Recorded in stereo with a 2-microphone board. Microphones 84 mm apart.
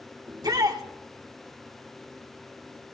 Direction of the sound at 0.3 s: 50° right (ahead or behind).